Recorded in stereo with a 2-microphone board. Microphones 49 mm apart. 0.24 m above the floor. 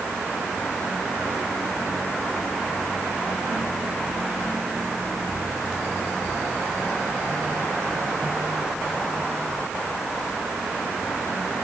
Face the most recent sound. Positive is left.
No sound to turn to.